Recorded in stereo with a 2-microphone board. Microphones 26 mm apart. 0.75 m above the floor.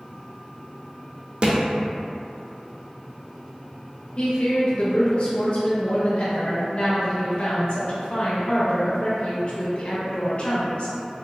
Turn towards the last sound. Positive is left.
turn(degrees=50)  # may be behind; listen again after turning